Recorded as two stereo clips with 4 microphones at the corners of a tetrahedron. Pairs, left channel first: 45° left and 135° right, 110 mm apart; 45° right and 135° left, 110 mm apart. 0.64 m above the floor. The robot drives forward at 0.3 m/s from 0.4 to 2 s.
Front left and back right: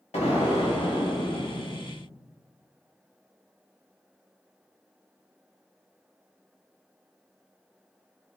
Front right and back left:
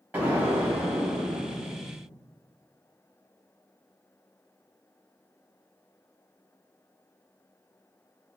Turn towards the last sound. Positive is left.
turn(degrees=80)